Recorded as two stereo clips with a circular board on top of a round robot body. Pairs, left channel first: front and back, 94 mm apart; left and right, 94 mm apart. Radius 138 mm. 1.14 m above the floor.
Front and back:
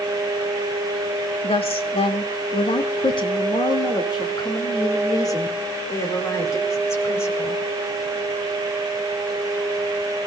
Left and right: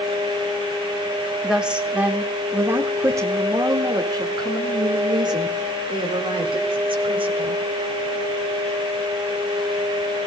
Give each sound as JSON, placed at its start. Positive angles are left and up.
{"t": 1.4, "sound": "a woman speaking", "azimuth_deg": -5, "distance_m": 3.0}